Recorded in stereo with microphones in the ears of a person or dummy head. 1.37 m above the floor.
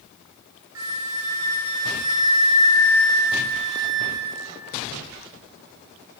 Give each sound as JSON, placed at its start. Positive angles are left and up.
{"t": 0.8, "sound": "a flute", "side_deg": -75, "distance_m": 2.0}